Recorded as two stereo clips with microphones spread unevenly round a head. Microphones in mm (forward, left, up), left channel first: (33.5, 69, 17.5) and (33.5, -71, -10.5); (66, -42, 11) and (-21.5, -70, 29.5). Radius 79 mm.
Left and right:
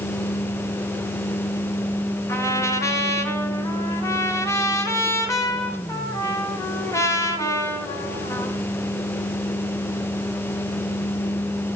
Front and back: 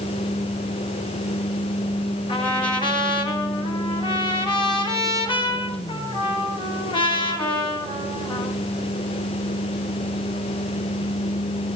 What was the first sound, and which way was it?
A trumpet, 20° left.